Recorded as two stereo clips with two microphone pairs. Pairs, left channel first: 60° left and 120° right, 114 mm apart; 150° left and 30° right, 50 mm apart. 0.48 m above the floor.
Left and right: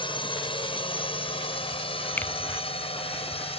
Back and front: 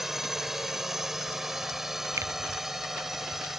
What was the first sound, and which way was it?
A drone, 50° left.